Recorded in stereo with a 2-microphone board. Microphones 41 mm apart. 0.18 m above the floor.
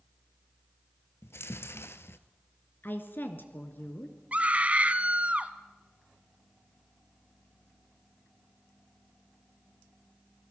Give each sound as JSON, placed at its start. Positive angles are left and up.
{"t": 1.2, "sound": "chewing", "side_deg": 75, "distance_m": 1.0}
{"t": 2.8, "sound": "a woman speaking", "side_deg": 55, "distance_m": 2.5}
{"t": 4.3, "sound": "a scream", "side_deg": -35, "distance_m": 1.3}